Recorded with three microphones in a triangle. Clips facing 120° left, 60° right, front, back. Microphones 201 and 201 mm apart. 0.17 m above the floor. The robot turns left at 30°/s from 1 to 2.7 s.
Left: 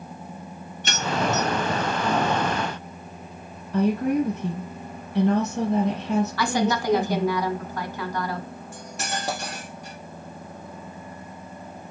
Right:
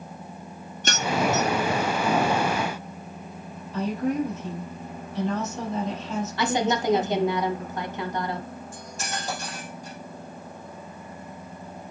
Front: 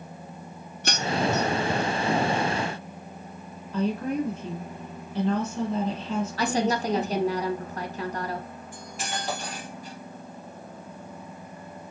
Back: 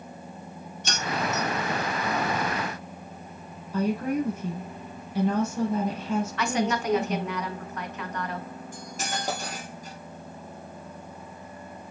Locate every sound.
0.8 s keys jangling: 15° right, 2 m; by 1.5 s 30° right, 2 m
3.7 s a woman speaking: 100° left, 4 m
6.4 s a woman speaking: 10° right, 1.3 m
8.7 s cutlery clinking: 135° left, 3 m